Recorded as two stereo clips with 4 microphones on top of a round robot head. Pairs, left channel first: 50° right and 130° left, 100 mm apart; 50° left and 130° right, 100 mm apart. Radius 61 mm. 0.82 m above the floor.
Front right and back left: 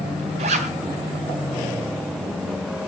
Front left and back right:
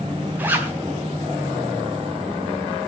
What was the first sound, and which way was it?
A zipper, 155° left.